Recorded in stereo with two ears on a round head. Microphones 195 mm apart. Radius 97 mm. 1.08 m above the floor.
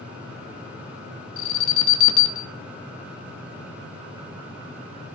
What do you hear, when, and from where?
1.4 s an alarm: 70° left (ahead or behind), 2.5 m